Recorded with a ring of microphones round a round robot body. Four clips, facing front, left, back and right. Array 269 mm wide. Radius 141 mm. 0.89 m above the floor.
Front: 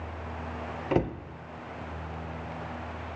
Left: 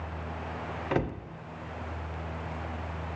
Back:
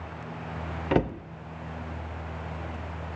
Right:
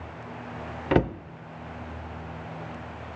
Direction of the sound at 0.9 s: 110° right.